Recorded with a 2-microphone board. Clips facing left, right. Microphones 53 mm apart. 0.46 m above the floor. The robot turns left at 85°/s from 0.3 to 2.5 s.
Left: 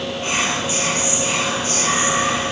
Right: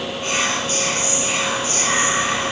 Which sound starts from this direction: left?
Whispering, at 0.2 s.